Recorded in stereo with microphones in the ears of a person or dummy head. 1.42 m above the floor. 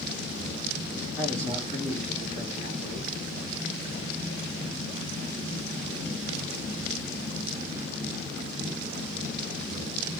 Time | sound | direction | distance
1.2 | a man speaking | 10° left (ahead or behind) | 3.5 m